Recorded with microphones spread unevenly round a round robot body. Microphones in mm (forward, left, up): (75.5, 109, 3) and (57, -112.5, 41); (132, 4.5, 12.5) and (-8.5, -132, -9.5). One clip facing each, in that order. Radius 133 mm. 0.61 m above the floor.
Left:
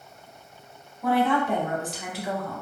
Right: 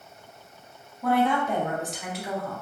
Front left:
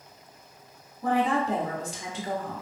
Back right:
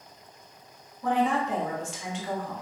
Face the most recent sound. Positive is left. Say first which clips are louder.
# left 1 dB, front left 1 dB
turn(degrees=10)